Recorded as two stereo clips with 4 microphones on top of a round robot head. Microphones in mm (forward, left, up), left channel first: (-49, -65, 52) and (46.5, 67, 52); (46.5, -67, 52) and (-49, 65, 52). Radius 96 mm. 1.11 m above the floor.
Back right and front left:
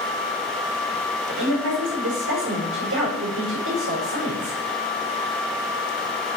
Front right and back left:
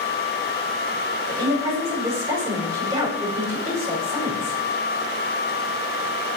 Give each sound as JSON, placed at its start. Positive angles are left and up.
{"t": 1.3, "sound": "a woman speaking", "azimuth_deg": 50, "distance_m": 5.5}